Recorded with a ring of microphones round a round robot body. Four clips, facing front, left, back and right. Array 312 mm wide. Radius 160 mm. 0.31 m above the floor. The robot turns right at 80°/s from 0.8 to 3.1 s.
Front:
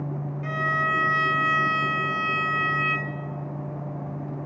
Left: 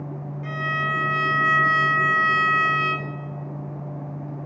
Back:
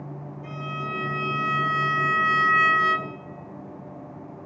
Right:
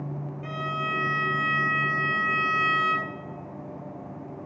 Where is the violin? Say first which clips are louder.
Left 4 dB, front 7 dB; 10° left, 0.9 m; by 3.1 s 165° right, 0.9 m.